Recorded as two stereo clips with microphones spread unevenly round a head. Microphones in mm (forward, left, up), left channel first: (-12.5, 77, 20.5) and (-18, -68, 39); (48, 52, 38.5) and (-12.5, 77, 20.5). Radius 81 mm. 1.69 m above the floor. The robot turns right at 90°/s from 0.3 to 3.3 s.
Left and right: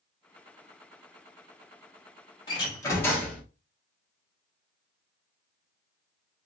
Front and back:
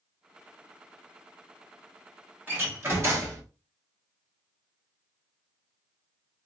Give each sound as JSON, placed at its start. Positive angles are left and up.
{"t": 2.5, "sound": "a door slam", "azimuth_deg": 110, "distance_m": 0.9}